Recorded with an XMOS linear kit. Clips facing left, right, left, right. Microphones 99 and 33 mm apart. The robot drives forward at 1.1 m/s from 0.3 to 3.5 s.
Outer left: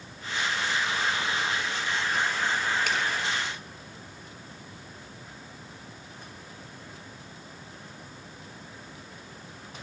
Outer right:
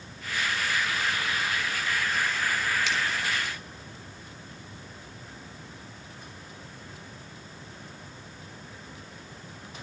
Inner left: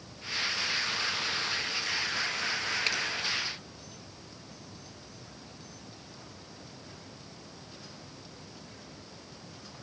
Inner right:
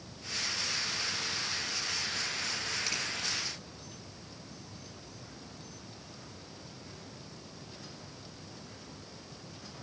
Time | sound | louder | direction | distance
2.9 | a finger snap | outer left 1 dB, inner left 7 dB | 50° left (ahead or behind) | 8 m